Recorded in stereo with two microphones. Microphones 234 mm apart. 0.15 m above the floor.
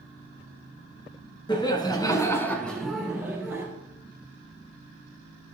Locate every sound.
1.5 s laughter: 20° left (ahead or behind), 1.4 m; by 3.6 s 5° right (ahead or behind), 1.9 m